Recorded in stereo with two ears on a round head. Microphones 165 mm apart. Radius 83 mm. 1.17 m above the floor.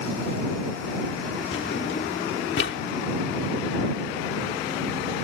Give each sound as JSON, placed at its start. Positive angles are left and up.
{"t": 1.5, "sound": "a drawer", "side_deg": 60}